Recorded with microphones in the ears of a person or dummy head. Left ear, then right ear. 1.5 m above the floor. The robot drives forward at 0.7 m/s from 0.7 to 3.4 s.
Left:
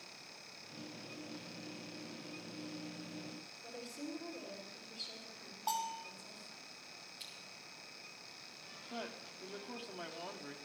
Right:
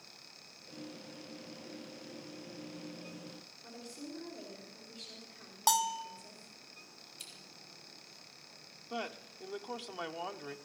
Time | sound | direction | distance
3.6 | a woman speaking | 10° right (ahead or behind) | 4 m
5.7 | a bell | 65° right (ahead or behind) | 0.6 m
7.2 | scissors | 25° right (ahead or behind) | 4.5 m
8.9 | a man speaking | 30° right (ahead or behind) | 0.7 m